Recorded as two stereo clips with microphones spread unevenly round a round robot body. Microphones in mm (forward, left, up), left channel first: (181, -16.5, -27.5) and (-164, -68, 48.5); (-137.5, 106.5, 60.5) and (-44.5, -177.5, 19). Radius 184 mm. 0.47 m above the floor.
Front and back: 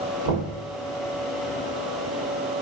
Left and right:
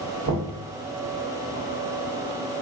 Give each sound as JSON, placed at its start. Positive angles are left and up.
{"t": 0.2, "sound": "knocking", "azimuth_deg": -115, "distance_m": 1.2}